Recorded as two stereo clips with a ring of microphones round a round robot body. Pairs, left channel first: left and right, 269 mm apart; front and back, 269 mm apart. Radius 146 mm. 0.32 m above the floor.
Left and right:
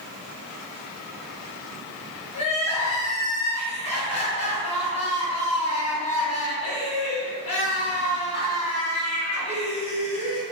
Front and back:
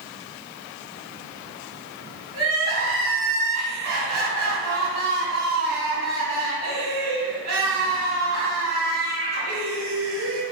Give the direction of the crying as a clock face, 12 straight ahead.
7 o'clock.